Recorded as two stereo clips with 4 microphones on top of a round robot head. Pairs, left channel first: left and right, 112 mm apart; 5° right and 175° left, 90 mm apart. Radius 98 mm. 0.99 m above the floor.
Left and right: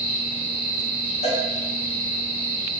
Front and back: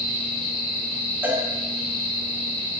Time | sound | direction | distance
1.2 | a cowbell | 110° left | 3.5 m